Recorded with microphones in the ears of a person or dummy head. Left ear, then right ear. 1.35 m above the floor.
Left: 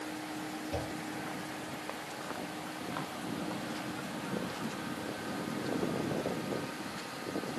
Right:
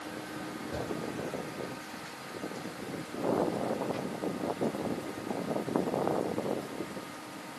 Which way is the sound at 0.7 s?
10° left (ahead or behind).